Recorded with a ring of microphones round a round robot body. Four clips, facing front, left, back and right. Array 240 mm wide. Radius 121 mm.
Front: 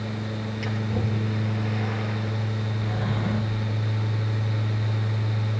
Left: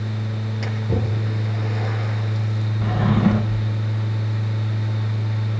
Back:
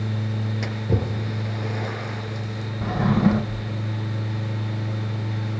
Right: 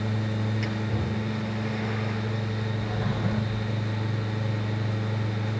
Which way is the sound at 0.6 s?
150° left.